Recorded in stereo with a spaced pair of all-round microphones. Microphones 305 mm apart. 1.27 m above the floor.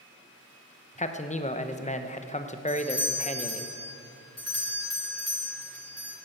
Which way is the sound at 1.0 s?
25° left (ahead or behind).